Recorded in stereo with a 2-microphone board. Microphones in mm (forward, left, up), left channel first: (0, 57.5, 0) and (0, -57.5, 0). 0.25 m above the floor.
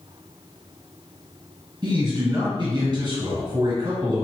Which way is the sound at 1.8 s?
35° right (ahead or behind).